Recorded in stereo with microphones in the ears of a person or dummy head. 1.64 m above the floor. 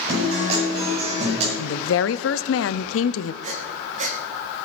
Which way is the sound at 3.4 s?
40° right (ahead or behind).